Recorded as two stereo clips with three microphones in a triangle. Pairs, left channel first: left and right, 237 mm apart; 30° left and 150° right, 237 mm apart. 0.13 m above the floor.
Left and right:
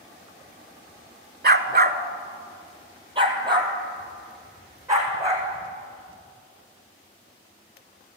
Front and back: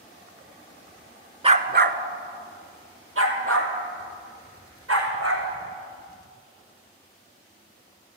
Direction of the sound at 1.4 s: 95° right.